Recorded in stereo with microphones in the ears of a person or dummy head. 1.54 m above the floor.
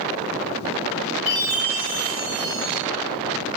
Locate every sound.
1.3 s a chime: 35° left (ahead or behind), 1.3 m